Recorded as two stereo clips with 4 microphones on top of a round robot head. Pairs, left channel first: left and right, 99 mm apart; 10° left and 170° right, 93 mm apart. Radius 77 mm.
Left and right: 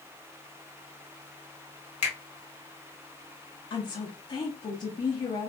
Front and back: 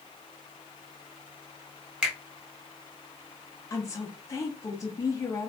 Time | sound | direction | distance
2.0 | a finger snap | 105° left | 1.3 m
3.7 | a woman speaking | 60° left | 0.7 m